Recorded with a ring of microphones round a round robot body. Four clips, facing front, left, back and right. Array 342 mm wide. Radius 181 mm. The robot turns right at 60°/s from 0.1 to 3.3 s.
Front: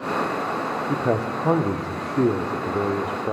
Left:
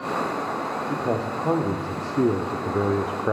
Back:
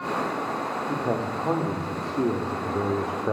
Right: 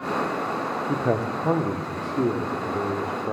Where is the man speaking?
50° right, 0.8 m; by 3.3 s 95° left, 0.8 m.